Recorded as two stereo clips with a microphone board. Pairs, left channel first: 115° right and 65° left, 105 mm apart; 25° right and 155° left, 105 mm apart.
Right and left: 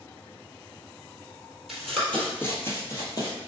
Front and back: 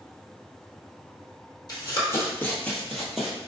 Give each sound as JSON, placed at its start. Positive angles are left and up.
{"t": 1.7, "sound": "running footsteps", "azimuth_deg": -25, "distance_m": 1.5}